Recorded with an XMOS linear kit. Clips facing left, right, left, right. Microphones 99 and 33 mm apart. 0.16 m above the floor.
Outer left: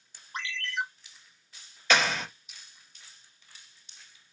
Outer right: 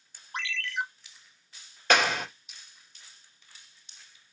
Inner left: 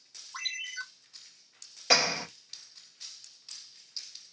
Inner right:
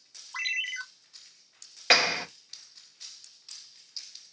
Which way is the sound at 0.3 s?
65° right (ahead or behind).